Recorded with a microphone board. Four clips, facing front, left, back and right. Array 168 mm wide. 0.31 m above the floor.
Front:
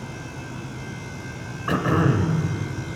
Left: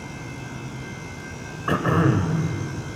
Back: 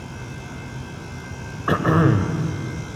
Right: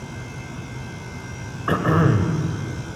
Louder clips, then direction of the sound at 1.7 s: Right 1 dB, back 3 dB; 155° right.